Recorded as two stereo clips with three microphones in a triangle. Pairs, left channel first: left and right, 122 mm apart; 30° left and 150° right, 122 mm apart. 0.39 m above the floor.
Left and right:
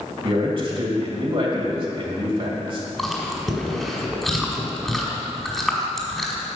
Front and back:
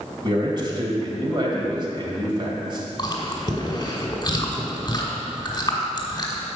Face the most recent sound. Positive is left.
turn(degrees=5)